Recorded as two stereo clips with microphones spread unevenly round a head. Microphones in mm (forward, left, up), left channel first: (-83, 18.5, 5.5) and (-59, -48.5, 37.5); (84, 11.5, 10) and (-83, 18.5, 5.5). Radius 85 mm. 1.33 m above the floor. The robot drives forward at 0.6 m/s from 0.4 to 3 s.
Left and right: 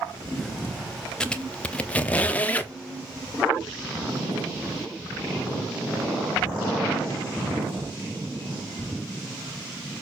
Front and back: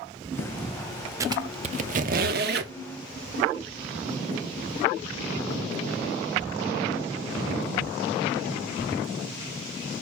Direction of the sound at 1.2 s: 130° right.